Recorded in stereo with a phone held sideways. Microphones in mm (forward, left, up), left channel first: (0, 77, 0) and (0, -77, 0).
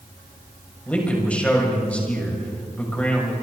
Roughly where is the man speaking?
Centre.